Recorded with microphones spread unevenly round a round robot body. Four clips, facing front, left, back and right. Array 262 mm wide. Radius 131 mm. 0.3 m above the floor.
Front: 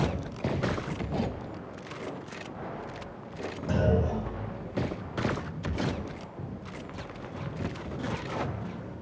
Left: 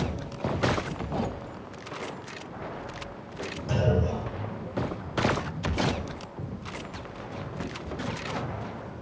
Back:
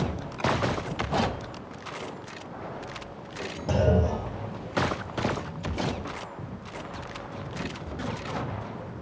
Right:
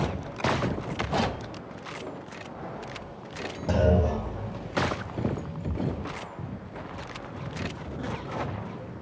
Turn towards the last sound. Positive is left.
turn(degrees=-130)